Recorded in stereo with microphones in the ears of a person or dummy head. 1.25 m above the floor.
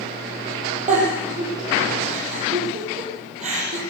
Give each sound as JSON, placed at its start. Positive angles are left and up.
{"t": 0.9, "sound": "a giggle", "side_deg": -40, "distance_m": 7.5}